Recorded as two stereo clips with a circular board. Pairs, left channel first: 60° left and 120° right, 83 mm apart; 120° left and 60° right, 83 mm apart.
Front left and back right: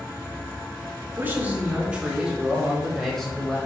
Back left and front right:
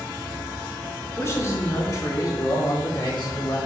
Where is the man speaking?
175° left, 4 m; by 3.6 s 140° left, 4 m.